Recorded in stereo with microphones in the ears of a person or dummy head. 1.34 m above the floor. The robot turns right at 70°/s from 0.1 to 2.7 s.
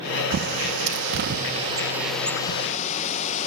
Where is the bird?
45° right (ahead or behind), 0.7 m; by 3.5 s 35° left (ahead or behind), 0.7 m.